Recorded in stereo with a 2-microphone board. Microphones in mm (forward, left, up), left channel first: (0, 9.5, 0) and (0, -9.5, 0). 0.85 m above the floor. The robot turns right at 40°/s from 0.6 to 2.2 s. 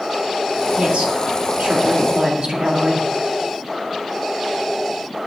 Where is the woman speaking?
100° right, 2 m; by 3.1 s 45° right, 2 m.